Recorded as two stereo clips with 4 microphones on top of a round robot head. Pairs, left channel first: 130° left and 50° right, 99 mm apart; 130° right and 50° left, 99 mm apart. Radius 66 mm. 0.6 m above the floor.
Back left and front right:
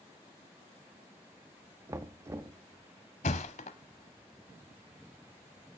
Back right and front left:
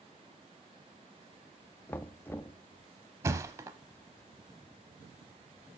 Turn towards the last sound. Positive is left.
turn(degrees=110)